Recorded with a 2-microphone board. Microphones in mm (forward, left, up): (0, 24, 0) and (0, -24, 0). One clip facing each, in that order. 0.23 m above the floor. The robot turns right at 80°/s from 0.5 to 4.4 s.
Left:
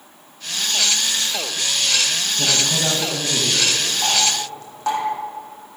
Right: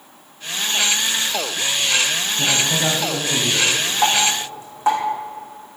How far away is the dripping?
About 4 m.